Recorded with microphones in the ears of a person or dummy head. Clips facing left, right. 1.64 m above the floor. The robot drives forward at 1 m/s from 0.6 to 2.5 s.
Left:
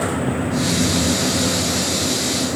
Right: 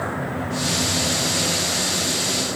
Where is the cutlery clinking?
No cutlery clinking in this recording.